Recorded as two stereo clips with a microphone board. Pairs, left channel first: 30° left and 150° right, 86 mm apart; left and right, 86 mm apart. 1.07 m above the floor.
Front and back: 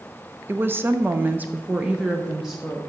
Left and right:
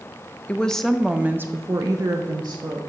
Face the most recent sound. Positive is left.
turn(degrees=-65)